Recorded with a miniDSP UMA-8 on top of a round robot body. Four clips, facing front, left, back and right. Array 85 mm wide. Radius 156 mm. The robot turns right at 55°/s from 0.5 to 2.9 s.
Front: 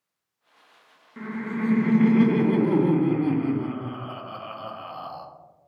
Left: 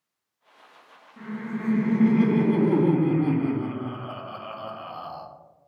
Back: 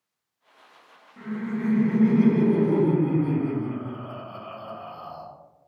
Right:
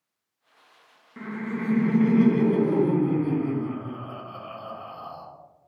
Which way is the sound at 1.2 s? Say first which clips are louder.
Right 1 dB, even; 50° right.